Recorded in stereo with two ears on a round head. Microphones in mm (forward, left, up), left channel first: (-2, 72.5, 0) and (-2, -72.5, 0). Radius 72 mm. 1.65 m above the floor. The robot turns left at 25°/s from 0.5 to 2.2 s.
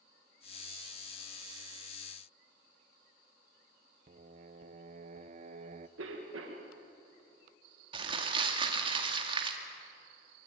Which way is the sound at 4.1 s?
45° right (ahead or behind).